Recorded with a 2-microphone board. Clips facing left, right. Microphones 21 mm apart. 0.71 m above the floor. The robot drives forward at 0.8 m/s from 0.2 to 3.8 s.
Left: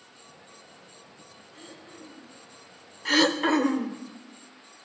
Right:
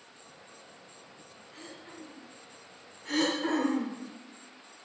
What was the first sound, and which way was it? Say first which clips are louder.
Throat clearing: right 1 dB; 80° right.